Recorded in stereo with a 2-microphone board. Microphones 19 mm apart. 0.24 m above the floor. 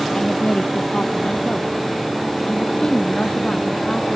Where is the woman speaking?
40° left (ahead or behind); by 4.2 s 55° left (ahead or behind).